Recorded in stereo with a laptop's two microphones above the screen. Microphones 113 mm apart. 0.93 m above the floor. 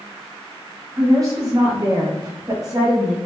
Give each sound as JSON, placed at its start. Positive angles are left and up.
{"t": 1.0, "sound": "a woman speaking", "side_deg": -30, "distance_m": 1.0}